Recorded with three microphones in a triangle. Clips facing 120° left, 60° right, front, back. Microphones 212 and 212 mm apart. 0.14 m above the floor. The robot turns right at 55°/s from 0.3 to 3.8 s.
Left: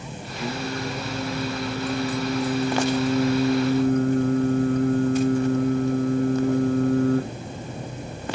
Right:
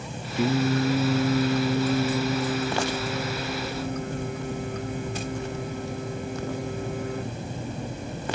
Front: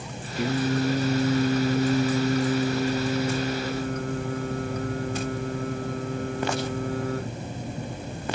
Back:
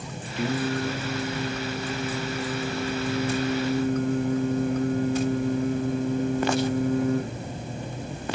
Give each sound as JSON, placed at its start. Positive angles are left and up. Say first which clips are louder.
{"t": 0.4, "sound": "singing", "louder": "right 7 dB, front 2 dB", "azimuth_deg": -80, "distance_m": 1.2}